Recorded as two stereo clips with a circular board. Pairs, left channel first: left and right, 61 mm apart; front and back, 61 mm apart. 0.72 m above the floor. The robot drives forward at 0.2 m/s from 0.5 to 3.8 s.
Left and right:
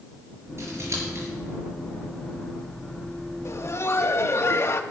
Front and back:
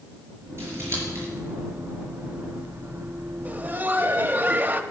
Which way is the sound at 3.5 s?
120° left.